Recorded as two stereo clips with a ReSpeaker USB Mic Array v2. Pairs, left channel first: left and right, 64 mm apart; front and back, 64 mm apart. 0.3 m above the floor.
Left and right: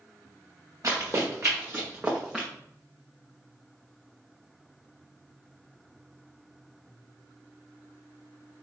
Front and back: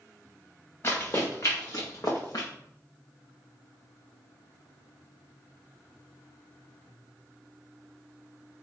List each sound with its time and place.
0.8 s running footsteps: 55° right, 1.7 m; by 2.5 s 10° right, 1.2 m